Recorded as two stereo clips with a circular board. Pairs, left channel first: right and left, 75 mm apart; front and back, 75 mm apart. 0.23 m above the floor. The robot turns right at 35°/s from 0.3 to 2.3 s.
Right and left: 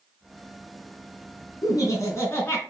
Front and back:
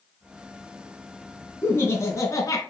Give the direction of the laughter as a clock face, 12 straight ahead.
2 o'clock.